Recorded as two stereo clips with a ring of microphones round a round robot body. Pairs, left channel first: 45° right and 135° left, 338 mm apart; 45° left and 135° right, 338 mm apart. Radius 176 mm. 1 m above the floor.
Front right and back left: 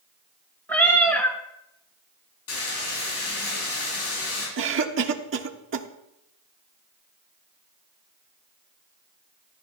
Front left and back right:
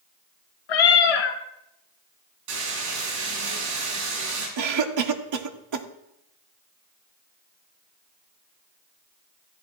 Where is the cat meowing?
40° left, 2 m.